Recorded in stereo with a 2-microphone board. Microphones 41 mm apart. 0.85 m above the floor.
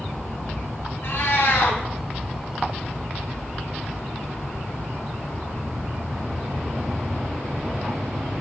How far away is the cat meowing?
About 1.8 m.